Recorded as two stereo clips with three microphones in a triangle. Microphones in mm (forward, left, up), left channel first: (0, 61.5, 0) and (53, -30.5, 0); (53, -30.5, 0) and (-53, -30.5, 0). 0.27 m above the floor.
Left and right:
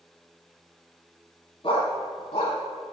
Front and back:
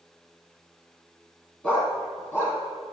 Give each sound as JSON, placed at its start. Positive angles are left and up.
{"t": 1.6, "sound": "a dog barking", "azimuth_deg": 75, "distance_m": 3.0}